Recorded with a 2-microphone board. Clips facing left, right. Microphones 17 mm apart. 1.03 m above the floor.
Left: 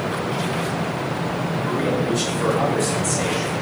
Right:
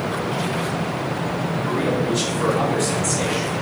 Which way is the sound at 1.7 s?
40° right (ahead or behind).